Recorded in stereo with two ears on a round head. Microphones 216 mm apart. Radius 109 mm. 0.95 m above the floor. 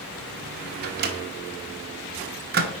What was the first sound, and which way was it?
A microwave, 40° right (ahead or behind).